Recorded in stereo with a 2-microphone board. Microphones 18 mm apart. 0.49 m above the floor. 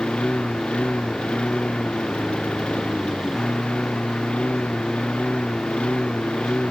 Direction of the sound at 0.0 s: 90° left.